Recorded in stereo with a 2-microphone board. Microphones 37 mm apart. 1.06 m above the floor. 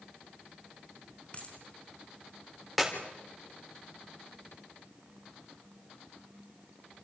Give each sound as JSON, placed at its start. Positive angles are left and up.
{"t": 1.3, "sound": "a dropped coin", "side_deg": 35, "distance_m": 4.0}
{"t": 2.8, "sound": "a clap", "side_deg": 0, "distance_m": 3.5}